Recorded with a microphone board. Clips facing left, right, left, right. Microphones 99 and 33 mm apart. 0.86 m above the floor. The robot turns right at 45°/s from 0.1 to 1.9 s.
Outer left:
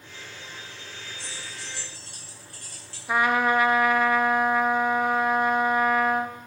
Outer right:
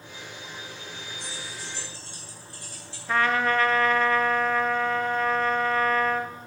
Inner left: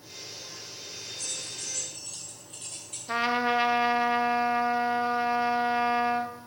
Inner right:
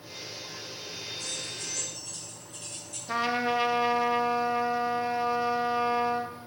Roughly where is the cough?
I don't hear a cough.